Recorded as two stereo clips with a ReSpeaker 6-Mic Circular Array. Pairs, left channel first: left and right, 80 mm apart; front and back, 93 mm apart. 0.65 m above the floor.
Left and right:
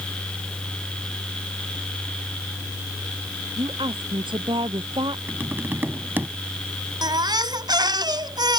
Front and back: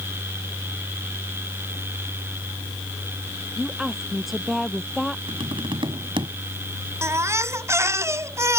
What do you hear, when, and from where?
3.6 s a woman speaking: 95° right; by 5.2 s 90° right
5.3 s tapping: 155° right
7.0 s a baby crying: 120° right